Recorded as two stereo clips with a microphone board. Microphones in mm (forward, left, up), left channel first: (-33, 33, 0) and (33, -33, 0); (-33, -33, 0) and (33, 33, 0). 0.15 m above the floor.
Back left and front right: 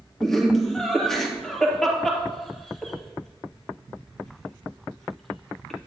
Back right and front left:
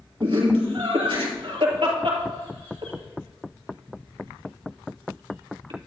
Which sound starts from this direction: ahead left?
Laughter, at 0.2 s.